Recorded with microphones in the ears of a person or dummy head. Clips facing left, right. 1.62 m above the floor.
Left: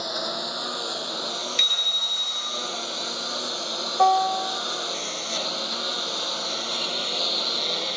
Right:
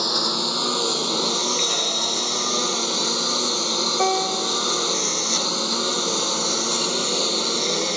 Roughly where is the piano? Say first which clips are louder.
Left 4 dB; right.